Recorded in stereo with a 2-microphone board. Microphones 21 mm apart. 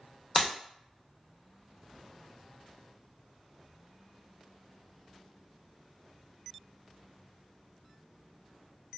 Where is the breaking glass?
20° left (ahead or behind), 0.5 m.